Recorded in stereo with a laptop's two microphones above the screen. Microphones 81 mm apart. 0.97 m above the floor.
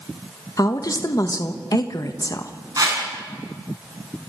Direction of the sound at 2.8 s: 50° right (ahead or behind).